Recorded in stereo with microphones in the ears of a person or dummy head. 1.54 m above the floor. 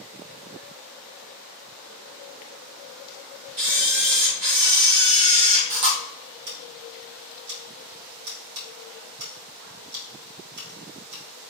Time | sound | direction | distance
3.6 | a camera shutter | 60° right (ahead or behind) | 1.7 m
6.5 | scissors | 80° right | 3 m